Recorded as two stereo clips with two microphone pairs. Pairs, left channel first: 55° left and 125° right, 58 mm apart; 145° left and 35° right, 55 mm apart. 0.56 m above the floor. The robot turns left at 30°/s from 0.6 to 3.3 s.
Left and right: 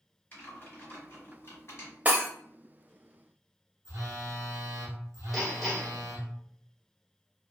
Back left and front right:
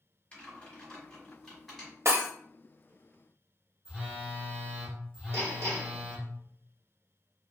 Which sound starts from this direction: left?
Typing on a keyboard, at 0.3 s.